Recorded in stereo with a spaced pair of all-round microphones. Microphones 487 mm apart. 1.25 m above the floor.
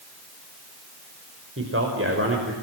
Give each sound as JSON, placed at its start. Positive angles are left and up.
{"t": 1.6, "sound": "a man speaking", "side_deg": -25, "distance_m": 5.0}